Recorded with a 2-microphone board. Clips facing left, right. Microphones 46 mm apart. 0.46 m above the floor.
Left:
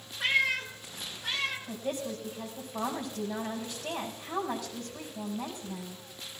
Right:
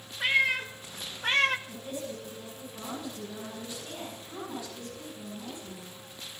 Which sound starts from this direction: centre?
A cat meowing, at 0.2 s.